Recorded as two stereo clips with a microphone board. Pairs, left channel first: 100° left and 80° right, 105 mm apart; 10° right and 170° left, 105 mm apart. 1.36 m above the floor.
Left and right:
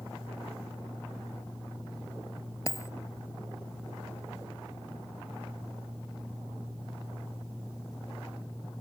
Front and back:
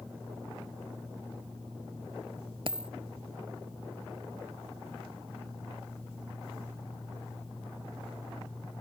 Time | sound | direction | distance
2.7 | a dropped coin | 155° left | ?